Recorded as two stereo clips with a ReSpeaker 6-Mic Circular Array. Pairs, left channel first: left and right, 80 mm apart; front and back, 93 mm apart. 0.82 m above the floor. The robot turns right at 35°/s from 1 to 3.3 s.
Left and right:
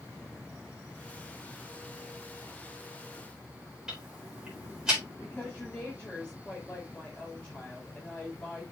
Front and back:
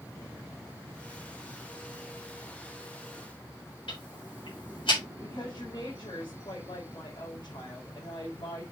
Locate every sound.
3.9 s ticking: 10° right, 4 m
5.2 s a woman speaking: 15° left, 3.5 m